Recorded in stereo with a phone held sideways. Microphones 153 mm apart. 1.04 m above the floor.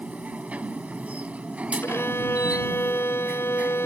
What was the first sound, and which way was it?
A machine running, 10° right (ahead or behind).